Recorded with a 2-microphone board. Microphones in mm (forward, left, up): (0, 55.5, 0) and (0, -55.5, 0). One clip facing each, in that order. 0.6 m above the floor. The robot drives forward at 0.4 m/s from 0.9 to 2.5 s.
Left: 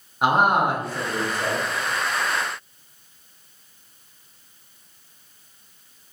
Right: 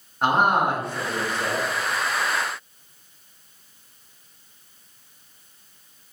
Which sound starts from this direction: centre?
A man speaking, at 0.2 s.